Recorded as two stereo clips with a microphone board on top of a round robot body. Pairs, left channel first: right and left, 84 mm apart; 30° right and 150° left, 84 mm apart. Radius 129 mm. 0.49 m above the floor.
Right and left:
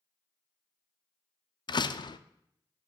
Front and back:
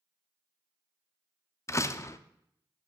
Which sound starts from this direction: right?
A door slam, at 1.7 s.